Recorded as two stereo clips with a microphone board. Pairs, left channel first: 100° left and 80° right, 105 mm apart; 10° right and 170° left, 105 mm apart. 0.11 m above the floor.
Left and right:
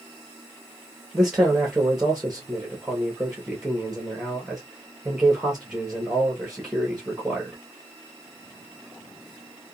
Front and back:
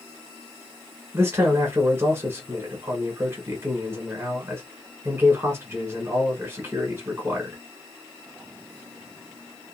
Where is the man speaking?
160° right, 1.1 m.